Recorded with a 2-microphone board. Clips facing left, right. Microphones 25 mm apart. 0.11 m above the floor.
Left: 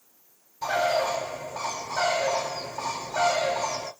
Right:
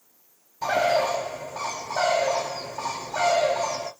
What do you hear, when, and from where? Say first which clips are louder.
0.6 s a bird: right 2 dB; 20° right (ahead or behind), 0.7 m